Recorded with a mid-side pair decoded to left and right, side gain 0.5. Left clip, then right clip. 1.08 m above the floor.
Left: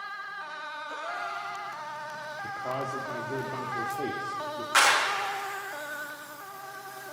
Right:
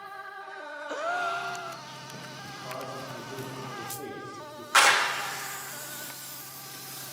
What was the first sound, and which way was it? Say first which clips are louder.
A gasp: right 7 dB; 50° right.